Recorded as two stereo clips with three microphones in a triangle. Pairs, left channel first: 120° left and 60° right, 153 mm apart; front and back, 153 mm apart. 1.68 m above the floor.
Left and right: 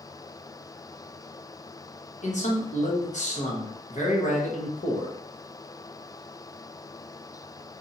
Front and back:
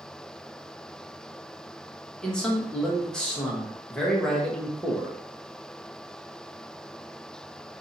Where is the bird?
No bird in this recording.